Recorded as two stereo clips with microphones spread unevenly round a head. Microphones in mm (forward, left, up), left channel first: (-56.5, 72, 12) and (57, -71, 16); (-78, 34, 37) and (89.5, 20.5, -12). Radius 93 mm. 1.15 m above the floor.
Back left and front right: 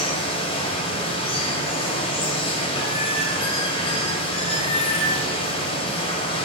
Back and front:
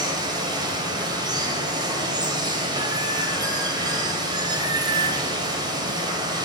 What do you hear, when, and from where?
0.0 s running water: 70° left, 1.6 m